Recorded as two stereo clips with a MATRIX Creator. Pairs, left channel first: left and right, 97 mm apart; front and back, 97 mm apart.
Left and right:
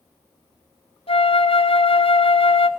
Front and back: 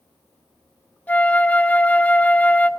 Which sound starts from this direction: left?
A flute, at 1.1 s.